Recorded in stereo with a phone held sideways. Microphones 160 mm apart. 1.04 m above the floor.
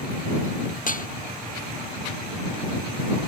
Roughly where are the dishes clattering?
Left.